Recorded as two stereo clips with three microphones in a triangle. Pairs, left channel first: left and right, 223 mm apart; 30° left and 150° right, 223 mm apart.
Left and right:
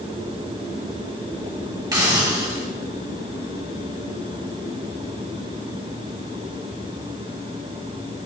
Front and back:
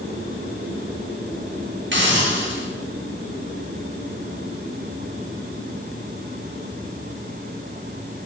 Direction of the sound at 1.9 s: 160° right.